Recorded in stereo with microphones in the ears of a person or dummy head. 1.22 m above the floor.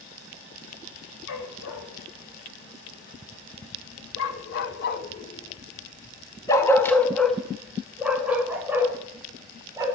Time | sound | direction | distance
1.3 | a dog barking | 65° left (ahead or behind) | 3 m